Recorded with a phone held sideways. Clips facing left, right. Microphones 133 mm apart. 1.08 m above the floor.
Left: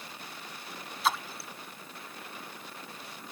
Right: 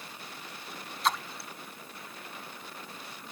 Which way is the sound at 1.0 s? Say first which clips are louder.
Even; 5° left (ahead or behind).